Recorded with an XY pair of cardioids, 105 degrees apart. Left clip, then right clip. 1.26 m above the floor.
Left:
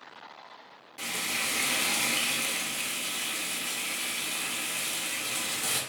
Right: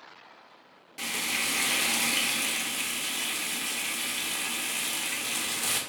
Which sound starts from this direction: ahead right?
Frying, at 1.0 s.